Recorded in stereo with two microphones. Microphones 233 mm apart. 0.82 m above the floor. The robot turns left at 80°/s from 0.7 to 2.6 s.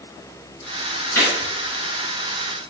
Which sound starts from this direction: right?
A gunshot, at 1.1 s.